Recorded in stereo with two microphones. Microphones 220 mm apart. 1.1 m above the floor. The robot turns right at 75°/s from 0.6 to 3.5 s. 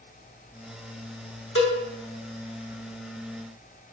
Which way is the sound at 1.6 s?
60° left (ahead or behind).